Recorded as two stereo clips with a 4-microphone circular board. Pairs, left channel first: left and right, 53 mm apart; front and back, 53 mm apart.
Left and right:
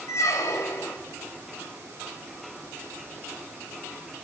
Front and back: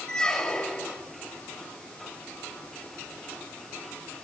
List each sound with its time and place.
0.1 s a squeak: 75° left, 1.9 m